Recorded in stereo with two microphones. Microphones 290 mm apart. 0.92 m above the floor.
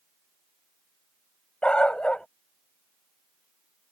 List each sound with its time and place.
1.6 s a dog barking: 5° left (ahead or behind)